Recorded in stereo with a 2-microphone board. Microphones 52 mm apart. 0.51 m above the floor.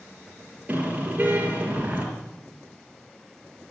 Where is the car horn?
25° right (ahead or behind), 6 m.